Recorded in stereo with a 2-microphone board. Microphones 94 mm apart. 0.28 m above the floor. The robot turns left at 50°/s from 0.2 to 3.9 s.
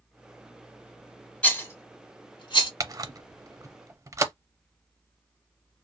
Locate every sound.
1.4 s a rattle: 15° left (ahead or behind), 1.1 m; by 2.7 s 65° left (ahead or behind), 1.1 m
2.8 s a camera shutter: 35° right (ahead or behind), 0.5 m